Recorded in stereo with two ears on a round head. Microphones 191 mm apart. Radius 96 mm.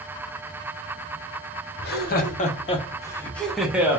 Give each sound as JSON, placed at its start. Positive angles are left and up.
{"t": 1.8, "sound": "laughter", "side_deg": 55, "distance_m": 1.1}